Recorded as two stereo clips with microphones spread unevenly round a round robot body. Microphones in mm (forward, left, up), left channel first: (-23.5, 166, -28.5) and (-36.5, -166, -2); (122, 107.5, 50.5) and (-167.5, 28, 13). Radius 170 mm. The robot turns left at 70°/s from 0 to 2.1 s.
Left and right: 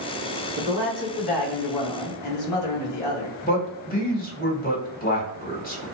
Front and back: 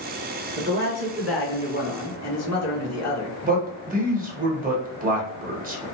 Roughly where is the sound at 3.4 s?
Behind left.